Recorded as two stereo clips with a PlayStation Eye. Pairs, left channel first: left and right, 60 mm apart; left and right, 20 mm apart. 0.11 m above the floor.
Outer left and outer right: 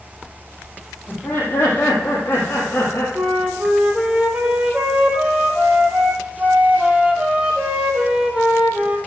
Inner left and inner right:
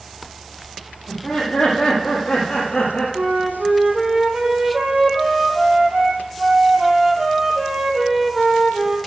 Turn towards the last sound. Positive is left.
turn(degrees=-15)  # may be behind; listen again after turning